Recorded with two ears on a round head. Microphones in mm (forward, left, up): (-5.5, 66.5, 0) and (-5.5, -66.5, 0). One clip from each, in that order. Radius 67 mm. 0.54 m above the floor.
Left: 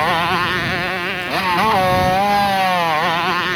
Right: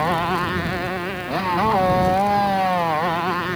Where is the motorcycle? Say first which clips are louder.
Left 4 dB; 60° left (ahead or behind); by 3.6 s 65° left (ahead or behind).